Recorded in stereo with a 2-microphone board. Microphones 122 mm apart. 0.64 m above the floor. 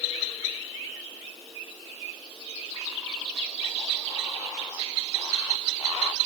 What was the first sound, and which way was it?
Only background noise.